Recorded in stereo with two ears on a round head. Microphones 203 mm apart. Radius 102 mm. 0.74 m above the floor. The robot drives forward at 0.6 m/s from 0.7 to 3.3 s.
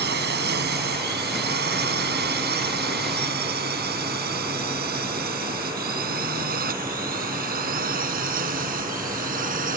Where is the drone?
45° right (ahead or behind); by 9.8 s 35° right (ahead or behind).